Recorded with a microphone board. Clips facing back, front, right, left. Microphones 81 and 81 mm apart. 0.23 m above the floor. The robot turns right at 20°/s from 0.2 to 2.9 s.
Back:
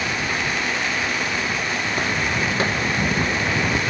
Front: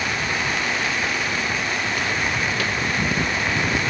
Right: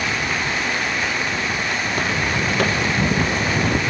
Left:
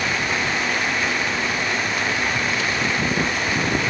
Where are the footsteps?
130° right; by 3.8 s 125° right.